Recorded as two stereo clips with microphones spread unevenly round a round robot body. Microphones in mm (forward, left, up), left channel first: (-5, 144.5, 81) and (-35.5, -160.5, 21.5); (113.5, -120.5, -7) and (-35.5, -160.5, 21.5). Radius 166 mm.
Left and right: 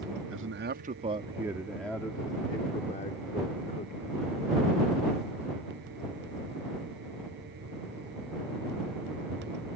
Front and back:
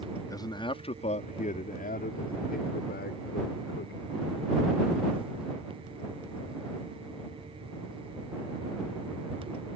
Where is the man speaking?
50° right; by 4.2 s 25° left.